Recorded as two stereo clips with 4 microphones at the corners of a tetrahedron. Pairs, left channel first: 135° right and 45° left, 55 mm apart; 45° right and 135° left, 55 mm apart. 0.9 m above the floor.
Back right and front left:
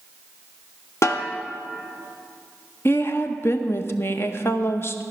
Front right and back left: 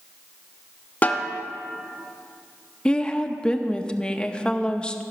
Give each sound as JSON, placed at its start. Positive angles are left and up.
{"t": 1.0, "sound": "a snare drum", "azimuth_deg": -105, "distance_m": 0.9}
{"t": 2.9, "sound": "a woman speaking", "azimuth_deg": -110, "distance_m": 0.7}